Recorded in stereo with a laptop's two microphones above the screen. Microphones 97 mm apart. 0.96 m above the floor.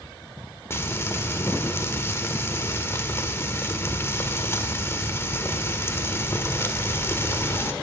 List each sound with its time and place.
0.7 s frying: 25° left (ahead or behind), 1.5 m